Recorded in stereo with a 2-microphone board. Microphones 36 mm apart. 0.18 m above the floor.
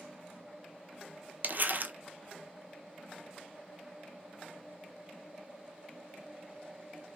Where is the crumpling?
55° right (ahead or behind), 0.6 m.